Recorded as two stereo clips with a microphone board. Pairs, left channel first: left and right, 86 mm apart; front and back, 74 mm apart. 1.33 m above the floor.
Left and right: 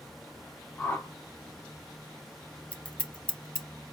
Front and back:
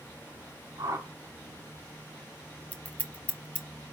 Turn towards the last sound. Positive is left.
turn(degrees=35)